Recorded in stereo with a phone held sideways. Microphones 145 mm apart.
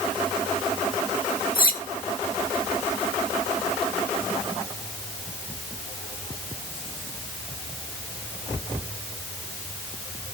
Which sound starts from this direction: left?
Cutlery clinking, at 1.6 s.